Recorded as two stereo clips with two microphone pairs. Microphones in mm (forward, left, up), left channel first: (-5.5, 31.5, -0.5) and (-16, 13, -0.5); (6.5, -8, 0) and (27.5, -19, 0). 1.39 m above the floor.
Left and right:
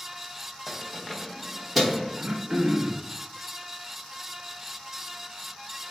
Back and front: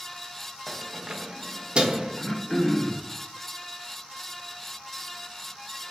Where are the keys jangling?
40° left, 0.7 m; by 2.1 s 50° right, 0.9 m.